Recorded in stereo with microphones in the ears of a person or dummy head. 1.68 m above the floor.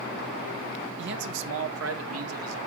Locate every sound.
1.0 s a man speaking: 60° right (ahead or behind), 1.2 m; by 2.6 s 85° right, 1.9 m